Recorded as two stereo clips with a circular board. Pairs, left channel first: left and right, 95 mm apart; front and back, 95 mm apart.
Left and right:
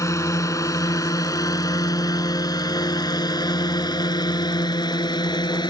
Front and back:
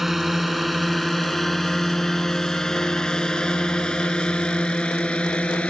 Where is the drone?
95° left; by 5.7 s 75° left.